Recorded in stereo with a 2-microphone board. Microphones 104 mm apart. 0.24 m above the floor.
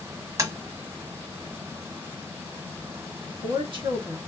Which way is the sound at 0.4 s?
35° right (ahead or behind).